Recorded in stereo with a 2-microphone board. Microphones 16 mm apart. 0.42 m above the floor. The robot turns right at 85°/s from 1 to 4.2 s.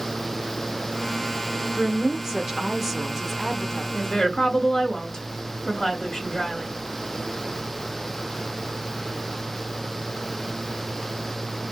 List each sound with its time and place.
1.8 s a woman speaking: 115° right, 1.0 m; by 3.8 s 60° left, 1.0 m
3.9 s a woman speaking: 60° left (ahead or behind), 2.5 m; by 6.7 s 50° left (ahead or behind), 2.5 m